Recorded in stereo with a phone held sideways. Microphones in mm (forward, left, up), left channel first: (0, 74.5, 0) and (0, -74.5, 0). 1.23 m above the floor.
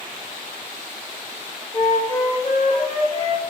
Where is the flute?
40° left (ahead or behind), 1.4 m.